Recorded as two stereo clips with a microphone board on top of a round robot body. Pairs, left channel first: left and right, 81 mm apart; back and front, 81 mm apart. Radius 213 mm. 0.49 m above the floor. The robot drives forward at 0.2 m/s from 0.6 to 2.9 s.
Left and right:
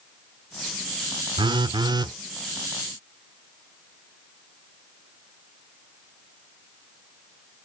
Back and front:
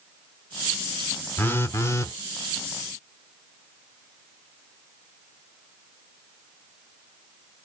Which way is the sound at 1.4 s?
115° right.